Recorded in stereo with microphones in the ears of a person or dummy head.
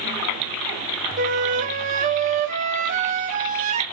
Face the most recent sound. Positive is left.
turn(degrees=-45)  # may be behind; listen again after turning